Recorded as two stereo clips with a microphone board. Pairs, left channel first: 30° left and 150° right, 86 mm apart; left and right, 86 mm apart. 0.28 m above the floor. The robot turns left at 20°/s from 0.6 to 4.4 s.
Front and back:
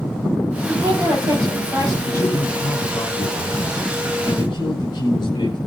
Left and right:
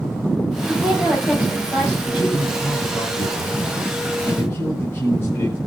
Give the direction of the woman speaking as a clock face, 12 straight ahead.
6 o'clock.